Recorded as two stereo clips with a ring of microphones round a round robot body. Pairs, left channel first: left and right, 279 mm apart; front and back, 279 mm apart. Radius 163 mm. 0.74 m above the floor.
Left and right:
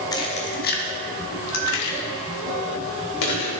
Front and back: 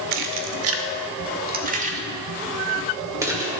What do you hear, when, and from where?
0.1 s keys jangling: 165° left, 1.0 m; by 3.5 s 100° left, 2.5 m